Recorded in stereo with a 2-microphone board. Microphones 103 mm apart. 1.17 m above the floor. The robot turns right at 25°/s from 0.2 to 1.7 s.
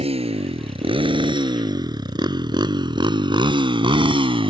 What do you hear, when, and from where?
0.0 s a motorcycle: 75° right (ahead or behind); by 4.5 s 60° right (ahead or behind)